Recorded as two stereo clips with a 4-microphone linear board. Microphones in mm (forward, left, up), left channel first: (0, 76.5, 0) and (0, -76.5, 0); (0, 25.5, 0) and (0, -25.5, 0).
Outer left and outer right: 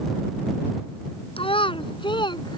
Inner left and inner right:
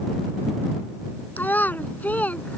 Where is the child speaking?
35° left (ahead or behind); by 2.6 s 30° left (ahead or behind).